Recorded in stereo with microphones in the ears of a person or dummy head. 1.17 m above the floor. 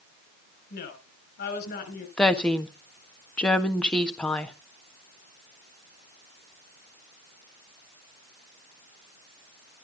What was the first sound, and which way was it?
A woman speaking, 65° left (ahead or behind).